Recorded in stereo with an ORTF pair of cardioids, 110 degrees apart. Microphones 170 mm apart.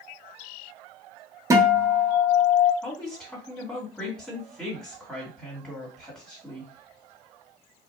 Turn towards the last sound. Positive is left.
turn(degrees=5)